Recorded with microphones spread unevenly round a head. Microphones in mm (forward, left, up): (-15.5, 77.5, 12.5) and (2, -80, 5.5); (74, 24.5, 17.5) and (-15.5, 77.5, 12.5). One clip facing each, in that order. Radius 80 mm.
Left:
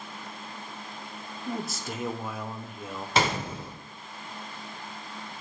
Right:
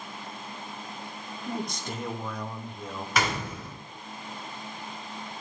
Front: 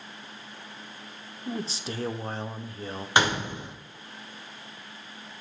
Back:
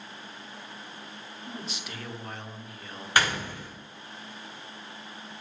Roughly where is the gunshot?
Ahead left.